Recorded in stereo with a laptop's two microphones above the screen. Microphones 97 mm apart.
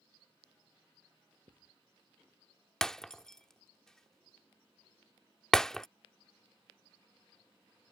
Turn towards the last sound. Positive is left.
turn(degrees=5)  # may be behind; listen again after turning